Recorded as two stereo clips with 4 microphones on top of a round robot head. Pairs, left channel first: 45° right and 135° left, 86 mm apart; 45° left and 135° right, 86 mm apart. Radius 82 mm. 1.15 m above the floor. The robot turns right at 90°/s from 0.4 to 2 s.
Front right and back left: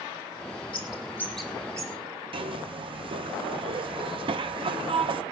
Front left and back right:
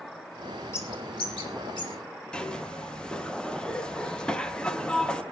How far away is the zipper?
About 1.2 m.